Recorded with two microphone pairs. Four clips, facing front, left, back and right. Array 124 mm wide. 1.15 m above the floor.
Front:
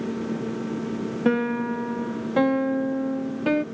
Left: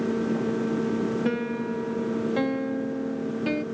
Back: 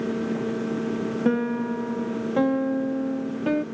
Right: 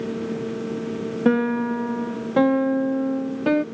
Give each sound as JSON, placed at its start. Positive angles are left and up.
{"t": 1.2, "sound": "a piano", "azimuth_deg": -65}